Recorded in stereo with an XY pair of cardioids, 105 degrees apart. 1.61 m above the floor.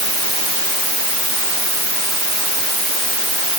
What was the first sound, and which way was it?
Only background noise.